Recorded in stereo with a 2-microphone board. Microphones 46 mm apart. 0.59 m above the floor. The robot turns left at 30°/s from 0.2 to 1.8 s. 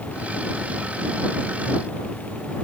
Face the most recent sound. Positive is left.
No sound to turn to.